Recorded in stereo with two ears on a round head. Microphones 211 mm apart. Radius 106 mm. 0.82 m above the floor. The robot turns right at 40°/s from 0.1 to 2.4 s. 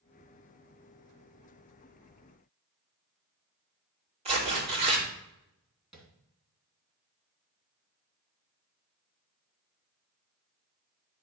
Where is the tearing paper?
25° right (ahead or behind), 2.5 m.